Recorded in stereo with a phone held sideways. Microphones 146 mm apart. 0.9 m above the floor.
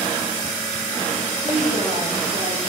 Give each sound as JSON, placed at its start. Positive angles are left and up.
{"t": 1.4, "sound": "a woman speaking", "side_deg": -45, "distance_m": 2.5}